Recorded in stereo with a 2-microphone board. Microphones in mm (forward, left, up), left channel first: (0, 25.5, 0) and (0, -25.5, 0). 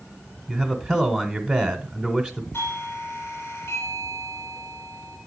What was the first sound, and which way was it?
A man speaking, 25° right (ahead or behind).